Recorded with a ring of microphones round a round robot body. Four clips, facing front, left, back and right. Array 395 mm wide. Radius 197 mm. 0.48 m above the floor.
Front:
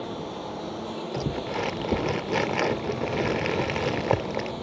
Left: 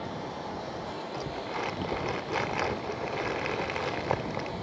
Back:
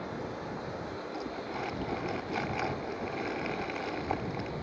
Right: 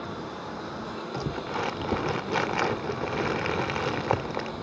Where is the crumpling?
25° right.